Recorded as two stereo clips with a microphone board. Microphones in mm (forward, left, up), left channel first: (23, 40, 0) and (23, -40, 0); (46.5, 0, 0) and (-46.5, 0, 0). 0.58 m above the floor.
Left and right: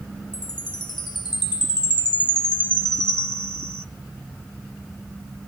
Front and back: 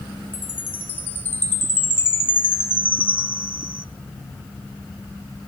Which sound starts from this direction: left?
A chime, at 0.3 s.